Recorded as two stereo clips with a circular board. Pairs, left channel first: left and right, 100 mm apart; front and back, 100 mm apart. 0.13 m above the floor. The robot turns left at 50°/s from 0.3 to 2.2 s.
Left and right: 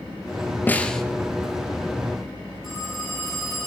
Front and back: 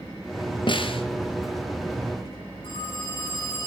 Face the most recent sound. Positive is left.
turn(degrees=0)